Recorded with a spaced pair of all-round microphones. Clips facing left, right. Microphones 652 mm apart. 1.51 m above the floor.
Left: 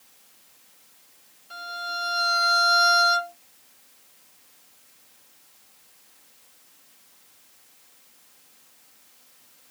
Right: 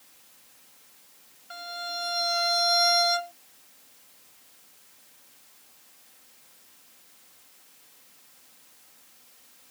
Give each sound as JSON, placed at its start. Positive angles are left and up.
{"t": 1.5, "sound": "a violin", "side_deg": -20, "distance_m": 1.2}